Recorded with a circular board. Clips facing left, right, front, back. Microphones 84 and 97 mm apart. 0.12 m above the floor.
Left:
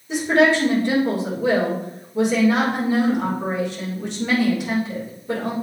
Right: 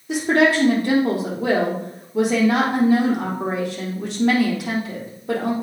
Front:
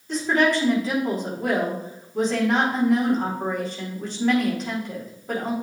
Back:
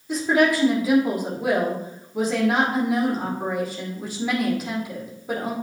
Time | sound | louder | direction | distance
0.1 | a woman speaking | even, back 1 dB | 100° right | 4.5 m